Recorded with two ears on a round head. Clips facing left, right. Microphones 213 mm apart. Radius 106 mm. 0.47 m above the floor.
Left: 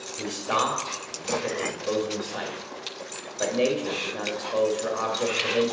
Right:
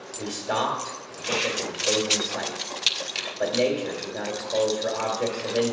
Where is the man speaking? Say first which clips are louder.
Right 1 dB; 10° left (ahead or behind), 1.9 m.